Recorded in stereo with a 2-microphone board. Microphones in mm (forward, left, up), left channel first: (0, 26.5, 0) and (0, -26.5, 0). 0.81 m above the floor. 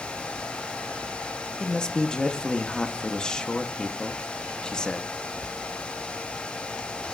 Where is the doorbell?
No doorbell in this recording.